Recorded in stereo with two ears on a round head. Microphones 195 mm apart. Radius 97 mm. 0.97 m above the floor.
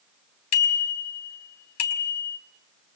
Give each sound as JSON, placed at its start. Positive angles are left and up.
{"t": 0.5, "sound": "a bicycle bell", "side_deg": 80, "distance_m": 4.5}